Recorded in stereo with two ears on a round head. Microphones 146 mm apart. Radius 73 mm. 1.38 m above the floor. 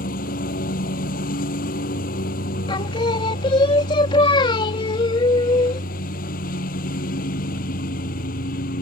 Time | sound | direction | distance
0.0 | a lawn mower | 50° left (ahead or behind) | ?
2.7 | singing | 30° left (ahead or behind) | ?